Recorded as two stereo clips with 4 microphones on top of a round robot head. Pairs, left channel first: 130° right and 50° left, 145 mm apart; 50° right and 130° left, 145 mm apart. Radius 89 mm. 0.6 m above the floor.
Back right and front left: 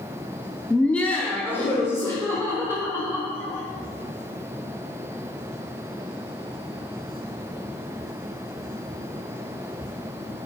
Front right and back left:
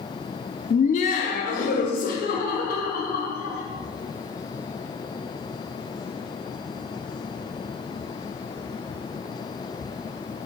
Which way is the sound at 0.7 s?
45° right.